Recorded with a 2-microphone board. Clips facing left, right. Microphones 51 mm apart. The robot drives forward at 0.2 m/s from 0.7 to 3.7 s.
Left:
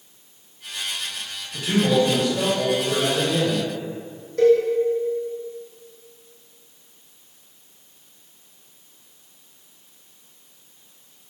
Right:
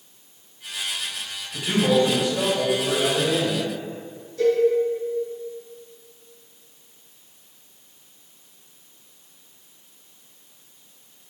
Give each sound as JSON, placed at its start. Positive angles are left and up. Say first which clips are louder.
{"t": 1.5, "sound": "a man speaking", "louder": "even", "side_deg": -20, "distance_m": 1.9}
{"t": 4.4, "sound": "a cowbell", "louder": "left 4 dB", "side_deg": 65, "distance_m": 2.0}